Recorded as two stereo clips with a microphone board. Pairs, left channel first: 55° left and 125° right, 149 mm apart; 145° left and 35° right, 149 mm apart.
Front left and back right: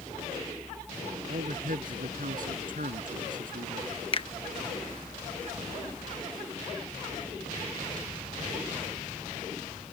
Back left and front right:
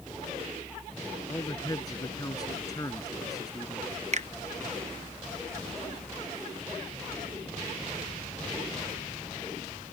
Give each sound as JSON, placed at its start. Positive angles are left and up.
{"t": 1.3, "sound": "a man speaking", "azimuth_deg": -150}
{"t": 4.1, "sound": "a finger snap", "azimuth_deg": 5}